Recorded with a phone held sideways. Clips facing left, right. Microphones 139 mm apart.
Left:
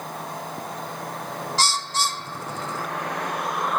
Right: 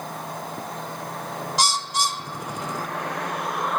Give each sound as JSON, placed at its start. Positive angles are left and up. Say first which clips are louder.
{"t": 1.6, "sound": "a bird", "louder": "right 1 dB", "side_deg": -15, "distance_m": 0.8}